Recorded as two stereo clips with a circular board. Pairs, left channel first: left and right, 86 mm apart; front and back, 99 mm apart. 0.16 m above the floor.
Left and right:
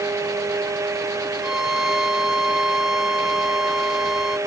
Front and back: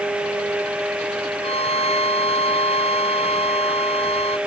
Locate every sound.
1.4 s a violin: 5° right